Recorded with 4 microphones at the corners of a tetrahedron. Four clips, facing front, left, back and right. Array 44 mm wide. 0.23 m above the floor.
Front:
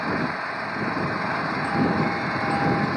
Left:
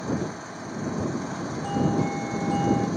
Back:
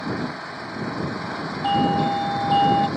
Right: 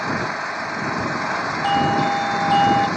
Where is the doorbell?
120° right.